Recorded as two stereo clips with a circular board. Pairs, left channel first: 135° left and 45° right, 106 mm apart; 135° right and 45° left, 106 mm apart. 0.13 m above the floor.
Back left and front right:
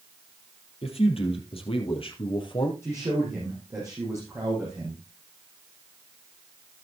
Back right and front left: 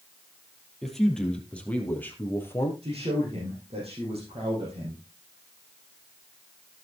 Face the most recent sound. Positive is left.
turn(degrees=15)